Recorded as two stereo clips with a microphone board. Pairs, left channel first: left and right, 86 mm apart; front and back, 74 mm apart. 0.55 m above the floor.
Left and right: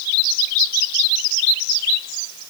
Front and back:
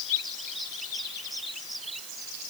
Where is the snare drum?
I don't hear a snare drum.